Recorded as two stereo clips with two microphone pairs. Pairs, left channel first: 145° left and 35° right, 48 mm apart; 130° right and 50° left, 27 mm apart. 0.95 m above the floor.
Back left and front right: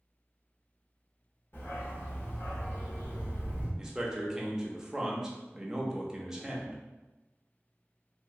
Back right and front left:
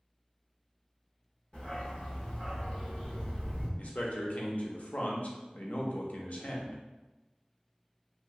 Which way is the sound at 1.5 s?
175° left.